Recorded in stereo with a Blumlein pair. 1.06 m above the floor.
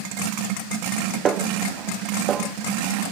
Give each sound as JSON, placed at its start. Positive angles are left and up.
{"t": 1.2, "sound": "a snare drum", "azimuth_deg": -25, "distance_m": 0.9}